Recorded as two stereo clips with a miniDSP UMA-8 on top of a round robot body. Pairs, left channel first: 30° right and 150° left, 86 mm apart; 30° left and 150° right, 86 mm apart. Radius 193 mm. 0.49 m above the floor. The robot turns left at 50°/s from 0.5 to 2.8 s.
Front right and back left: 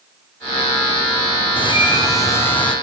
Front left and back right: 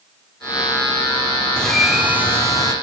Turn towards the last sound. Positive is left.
turn(degrees=-110)